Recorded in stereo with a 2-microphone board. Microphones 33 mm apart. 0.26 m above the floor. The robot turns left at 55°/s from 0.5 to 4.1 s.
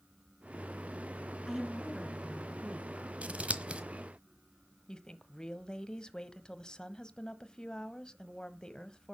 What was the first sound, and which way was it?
A woman speaking, 15° left.